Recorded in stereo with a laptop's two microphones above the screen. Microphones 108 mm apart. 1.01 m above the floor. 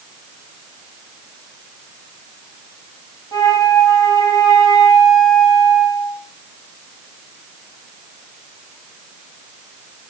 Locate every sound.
3.3 s a flute: 35° left (ahead or behind), 5.5 m